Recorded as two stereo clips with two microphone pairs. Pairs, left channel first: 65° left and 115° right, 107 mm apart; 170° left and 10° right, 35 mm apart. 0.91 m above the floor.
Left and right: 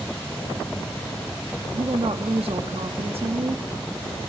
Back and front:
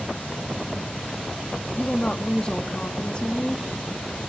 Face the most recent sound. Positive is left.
turn(degrees=-135)